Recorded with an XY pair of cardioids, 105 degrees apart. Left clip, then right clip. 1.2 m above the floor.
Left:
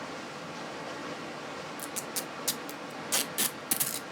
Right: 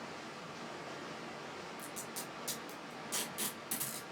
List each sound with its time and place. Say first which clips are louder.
0.0 s running water: left 6 dB; 55° left, 0.8 m
1.8 s tape being pulled: left 7 dB; 70° left, 0.6 m